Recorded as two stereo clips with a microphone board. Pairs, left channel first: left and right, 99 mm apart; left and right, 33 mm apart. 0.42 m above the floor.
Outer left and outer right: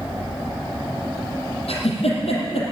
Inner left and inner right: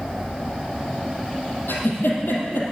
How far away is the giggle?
About 3.5 m.